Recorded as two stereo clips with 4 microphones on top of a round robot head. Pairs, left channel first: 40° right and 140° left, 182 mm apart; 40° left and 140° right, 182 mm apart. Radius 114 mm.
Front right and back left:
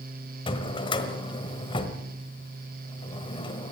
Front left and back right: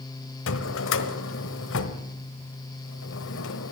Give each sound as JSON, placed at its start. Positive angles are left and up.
{"t": 0.5, "sound": "a drawer", "azimuth_deg": 25, "distance_m": 1.2}